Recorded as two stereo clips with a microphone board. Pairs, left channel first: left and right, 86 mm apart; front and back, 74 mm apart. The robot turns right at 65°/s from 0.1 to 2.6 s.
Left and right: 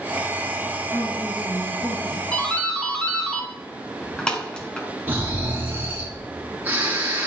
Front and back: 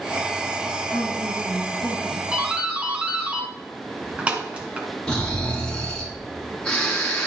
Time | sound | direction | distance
0.9 | a woman speaking | 15° left | 3 m
2.3 | a doorbell | 130° left | 1.5 m
5.1 | snoring | 60° right | 1.6 m